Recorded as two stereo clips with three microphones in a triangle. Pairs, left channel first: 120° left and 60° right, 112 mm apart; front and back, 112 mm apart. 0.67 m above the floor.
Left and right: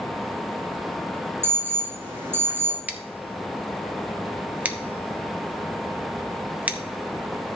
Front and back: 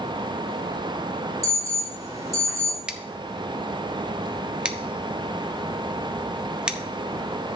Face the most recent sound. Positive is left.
turn(degrees=-115)